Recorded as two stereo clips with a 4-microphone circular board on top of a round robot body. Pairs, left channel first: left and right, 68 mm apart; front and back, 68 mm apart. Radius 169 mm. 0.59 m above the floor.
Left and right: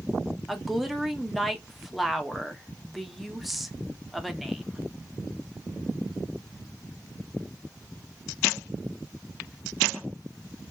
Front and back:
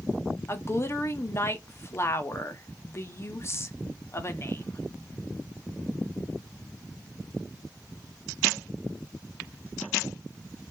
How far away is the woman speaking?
About 0.8 m.